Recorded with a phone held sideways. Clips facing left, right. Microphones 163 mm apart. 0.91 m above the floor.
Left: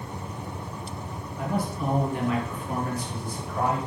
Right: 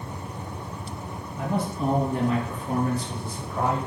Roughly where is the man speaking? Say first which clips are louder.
Right 2 dB; centre.